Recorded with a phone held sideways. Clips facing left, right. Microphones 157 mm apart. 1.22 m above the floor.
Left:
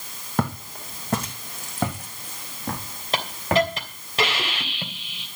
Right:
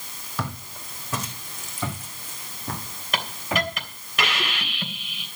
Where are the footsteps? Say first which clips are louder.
Left 7 dB; 55° left (ahead or behind), 3 m; by 3.7 s 70° left (ahead or behind), 7.5 m.